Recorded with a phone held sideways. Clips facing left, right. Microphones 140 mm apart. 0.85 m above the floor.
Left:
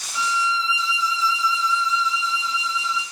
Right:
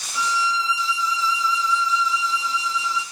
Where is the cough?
I don't hear a cough.